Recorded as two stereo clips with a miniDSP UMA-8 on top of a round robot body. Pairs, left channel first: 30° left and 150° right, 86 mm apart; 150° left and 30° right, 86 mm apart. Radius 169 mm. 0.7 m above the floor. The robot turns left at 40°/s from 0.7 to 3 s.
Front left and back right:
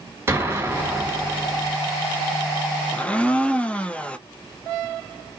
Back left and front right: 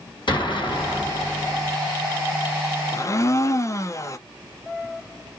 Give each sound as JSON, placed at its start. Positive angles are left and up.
{"t": 0.3, "sound": "an explosion", "azimuth_deg": 155, "distance_m": 2.0}
{"t": 2.9, "sound": "a blender", "azimuth_deg": 105, "distance_m": 0.6}